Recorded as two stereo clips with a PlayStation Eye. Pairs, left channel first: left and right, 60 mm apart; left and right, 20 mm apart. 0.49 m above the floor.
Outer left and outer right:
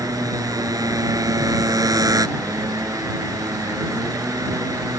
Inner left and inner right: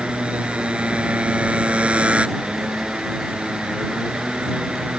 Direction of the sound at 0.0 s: 85° right.